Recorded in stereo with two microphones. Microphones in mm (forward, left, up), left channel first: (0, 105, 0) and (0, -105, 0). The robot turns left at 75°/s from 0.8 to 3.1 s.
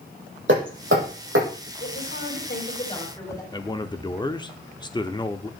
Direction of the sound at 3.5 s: 20° left (ahead or behind).